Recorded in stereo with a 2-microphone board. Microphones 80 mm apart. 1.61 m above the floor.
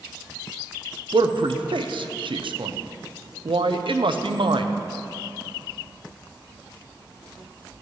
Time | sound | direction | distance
1.1 | a man speaking | 75° right (ahead or behind) | 0.6 m